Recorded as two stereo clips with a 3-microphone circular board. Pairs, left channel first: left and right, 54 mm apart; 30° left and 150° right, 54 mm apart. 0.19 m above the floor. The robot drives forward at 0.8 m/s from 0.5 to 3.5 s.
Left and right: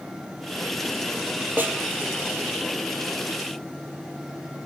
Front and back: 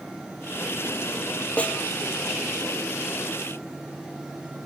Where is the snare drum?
35° right, 1.9 m.